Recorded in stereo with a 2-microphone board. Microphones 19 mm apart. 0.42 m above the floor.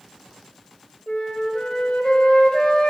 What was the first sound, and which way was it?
A flute, 50° left (ahead or behind).